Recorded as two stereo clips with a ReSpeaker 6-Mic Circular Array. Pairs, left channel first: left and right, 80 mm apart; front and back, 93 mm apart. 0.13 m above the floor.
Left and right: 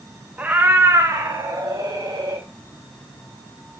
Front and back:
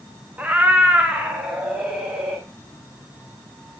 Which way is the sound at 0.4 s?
135° right.